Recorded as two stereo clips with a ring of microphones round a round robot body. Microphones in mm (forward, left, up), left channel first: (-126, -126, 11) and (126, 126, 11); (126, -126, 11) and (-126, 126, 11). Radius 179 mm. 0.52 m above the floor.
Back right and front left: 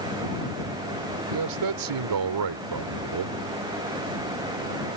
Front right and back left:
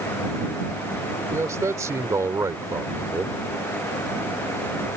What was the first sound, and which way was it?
A man speaking, 55° left.